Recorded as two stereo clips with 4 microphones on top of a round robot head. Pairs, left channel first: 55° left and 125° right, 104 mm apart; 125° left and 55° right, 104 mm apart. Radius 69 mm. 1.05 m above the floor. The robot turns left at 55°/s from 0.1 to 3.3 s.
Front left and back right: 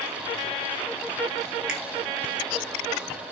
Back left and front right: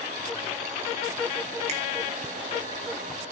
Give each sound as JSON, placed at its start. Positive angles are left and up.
{"t": 1.7, "sound": "a finger snap", "azimuth_deg": -40, "distance_m": 2.0}